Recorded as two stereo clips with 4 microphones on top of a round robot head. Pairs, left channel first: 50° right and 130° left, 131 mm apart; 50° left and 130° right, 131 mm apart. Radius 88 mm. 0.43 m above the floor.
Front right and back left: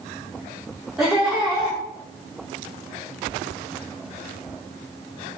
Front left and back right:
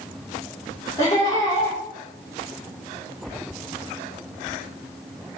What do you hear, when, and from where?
1.0 s laughter: 45° left, 1.5 m